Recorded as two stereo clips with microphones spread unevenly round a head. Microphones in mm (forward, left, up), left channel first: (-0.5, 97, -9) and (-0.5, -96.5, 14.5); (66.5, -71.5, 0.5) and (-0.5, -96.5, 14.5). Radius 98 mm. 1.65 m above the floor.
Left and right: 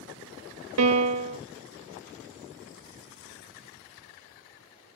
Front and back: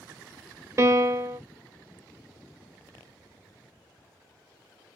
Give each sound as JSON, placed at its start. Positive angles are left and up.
{"t": 0.8, "sound": "a piano", "azimuth_deg": -105, "distance_m": 0.5}